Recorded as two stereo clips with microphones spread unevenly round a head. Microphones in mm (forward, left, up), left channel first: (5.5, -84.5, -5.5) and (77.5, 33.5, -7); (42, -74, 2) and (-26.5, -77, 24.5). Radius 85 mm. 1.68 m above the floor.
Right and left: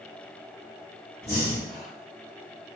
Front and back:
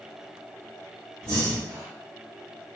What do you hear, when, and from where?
1.2 s breathing: 165° left, 0.8 m